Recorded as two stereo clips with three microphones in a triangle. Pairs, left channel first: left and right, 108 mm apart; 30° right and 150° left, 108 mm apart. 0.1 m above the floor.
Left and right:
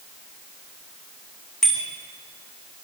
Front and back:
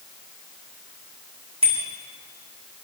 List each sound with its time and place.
1.6 s a bicycle bell: 175° left, 5.5 m